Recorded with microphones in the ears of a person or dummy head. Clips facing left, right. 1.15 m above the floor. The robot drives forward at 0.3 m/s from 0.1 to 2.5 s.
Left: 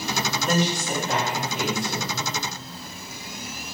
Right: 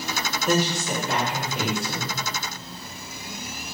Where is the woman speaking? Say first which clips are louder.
Right 2 dB; centre (ahead or behind), 1.9 m.